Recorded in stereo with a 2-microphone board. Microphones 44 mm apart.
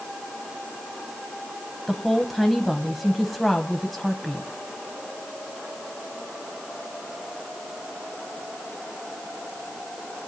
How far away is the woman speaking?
About 1.1 m.